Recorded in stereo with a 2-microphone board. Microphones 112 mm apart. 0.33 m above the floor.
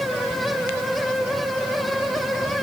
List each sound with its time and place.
Only background noise.